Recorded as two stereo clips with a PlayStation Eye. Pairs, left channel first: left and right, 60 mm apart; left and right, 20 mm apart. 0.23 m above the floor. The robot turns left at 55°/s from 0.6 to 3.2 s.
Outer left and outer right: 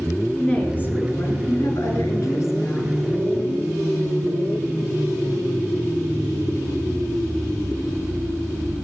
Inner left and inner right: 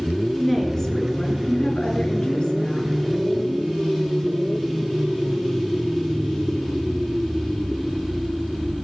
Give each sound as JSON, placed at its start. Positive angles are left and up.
{"t": 0.4, "sound": "a woman speaking", "azimuth_deg": 155, "distance_m": 3.5}